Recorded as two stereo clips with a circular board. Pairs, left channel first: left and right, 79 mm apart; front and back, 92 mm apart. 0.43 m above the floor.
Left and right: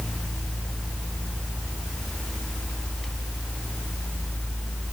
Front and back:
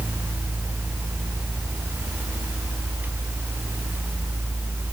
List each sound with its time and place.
Only background noise.